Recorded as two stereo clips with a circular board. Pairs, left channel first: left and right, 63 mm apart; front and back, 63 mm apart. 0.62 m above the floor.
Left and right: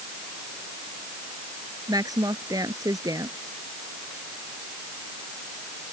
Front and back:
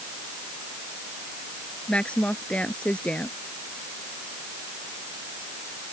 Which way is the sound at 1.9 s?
70° right.